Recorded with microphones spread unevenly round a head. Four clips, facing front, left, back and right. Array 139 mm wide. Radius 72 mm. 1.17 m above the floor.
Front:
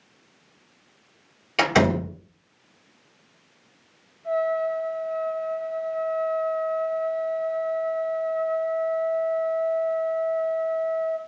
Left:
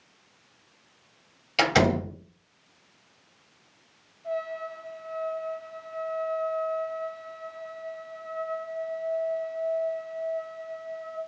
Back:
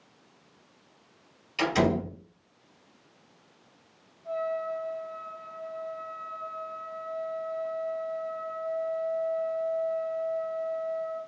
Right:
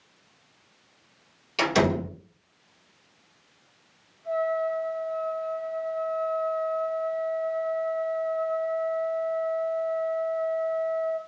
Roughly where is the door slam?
Ahead.